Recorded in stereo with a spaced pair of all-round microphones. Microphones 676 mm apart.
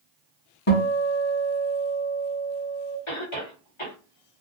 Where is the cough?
45° left (ahead or behind), 1.2 m.